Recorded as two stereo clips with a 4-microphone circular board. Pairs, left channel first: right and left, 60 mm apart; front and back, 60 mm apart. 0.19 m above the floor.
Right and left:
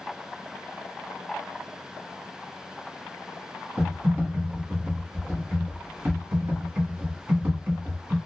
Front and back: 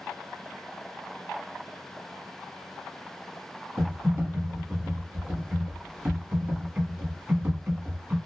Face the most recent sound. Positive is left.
turn(degrees=130)